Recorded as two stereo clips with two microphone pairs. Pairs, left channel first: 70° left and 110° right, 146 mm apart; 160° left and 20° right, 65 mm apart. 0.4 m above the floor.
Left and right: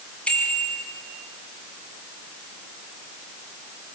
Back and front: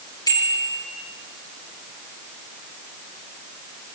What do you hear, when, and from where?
0.3 s a bicycle bell: 150° left, 6 m